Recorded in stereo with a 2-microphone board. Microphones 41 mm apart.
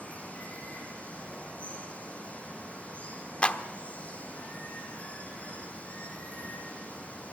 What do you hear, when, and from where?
0.0 s running water: 35° left (ahead or behind), 5.5 m
3.4 s a clap: 30° left (ahead or behind), 1.1 m